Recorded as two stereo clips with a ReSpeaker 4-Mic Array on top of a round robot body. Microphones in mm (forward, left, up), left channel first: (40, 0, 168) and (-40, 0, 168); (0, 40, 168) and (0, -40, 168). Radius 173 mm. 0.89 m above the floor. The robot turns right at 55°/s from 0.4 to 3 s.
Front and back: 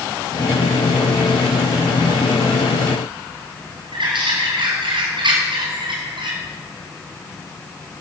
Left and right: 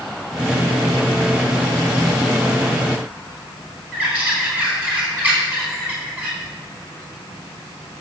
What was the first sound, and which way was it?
A bird, 160° right.